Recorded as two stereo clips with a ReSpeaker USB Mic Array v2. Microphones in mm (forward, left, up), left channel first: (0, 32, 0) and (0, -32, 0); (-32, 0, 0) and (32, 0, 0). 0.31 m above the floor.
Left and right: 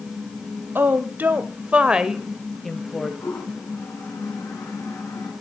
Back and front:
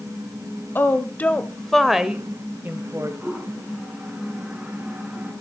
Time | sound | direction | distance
0.8 | a woman speaking | 135° right | 1.4 m
3.2 | a toilet flushing | 70° left | 4.5 m